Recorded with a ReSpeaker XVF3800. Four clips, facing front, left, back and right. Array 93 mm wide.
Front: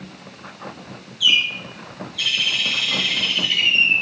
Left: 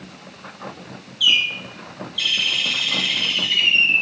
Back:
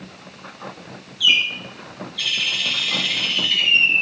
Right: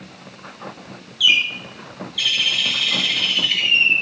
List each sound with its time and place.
1.2 s a bird: 80° right, 2 m